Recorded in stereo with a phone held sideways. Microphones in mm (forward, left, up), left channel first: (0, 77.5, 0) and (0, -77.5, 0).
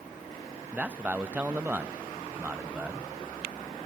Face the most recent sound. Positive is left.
turn(degrees=-10)  # may be behind; listen again after turning